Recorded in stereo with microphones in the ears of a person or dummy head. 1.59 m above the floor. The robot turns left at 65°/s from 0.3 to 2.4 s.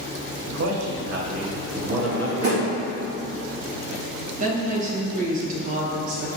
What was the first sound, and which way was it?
A man speaking, 75° right.